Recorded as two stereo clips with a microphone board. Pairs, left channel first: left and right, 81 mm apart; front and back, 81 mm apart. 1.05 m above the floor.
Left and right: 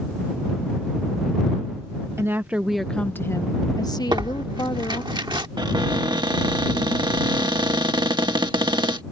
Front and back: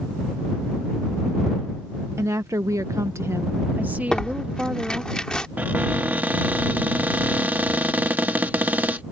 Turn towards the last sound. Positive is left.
turn(degrees=-110)